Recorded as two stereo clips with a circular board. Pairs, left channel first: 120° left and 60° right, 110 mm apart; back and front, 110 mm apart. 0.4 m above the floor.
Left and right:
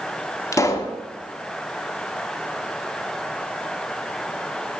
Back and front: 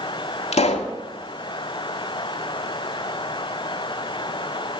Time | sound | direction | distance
0.5 | a pop | 175° right | 0.6 m